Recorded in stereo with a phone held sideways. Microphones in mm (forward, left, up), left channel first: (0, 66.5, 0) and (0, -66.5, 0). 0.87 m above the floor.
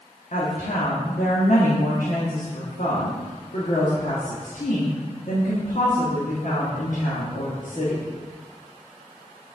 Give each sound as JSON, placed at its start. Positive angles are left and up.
{"t": 0.3, "sound": "a woman speaking", "side_deg": 70, "distance_m": 1.5}